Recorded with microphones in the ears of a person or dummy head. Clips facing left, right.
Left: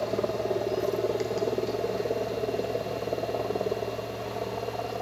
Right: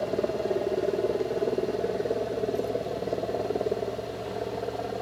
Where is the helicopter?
5° right (ahead or behind); by 5.0 s 10° right (ahead or behind).